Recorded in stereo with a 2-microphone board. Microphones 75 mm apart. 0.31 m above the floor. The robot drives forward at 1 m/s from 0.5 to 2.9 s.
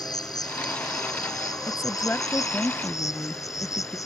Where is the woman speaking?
30° left (ahead or behind); by 4.0 s 20° left (ahead or behind).